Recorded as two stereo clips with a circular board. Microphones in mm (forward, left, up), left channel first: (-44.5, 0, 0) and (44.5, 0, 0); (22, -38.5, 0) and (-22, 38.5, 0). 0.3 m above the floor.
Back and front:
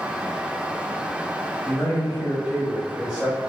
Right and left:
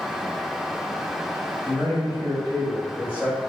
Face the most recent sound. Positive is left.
turn(degrees=-65)